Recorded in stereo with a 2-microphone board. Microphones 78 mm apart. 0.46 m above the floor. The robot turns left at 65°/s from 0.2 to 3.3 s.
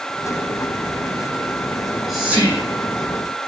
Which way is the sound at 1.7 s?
20° left (ahead or behind).